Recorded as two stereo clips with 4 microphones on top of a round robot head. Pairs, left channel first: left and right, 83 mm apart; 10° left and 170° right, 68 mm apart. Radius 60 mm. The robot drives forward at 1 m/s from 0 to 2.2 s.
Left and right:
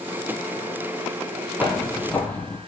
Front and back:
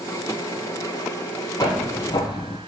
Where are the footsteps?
15° left, 1.9 m; by 2.6 s 20° left, 1.3 m.